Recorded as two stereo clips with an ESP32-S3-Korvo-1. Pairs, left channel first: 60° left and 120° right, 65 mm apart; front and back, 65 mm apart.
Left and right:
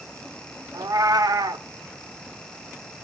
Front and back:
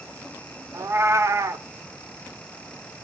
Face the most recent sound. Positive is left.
turn(degrees=-135)